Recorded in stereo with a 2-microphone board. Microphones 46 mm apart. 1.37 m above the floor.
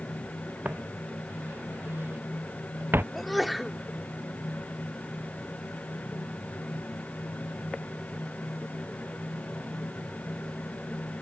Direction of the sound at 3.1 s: Centre (ahead or behind).